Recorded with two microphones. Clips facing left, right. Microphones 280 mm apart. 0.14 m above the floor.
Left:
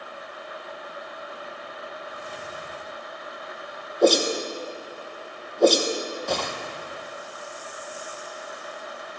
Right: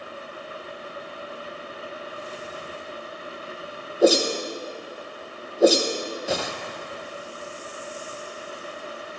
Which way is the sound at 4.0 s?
5° right (ahead or behind).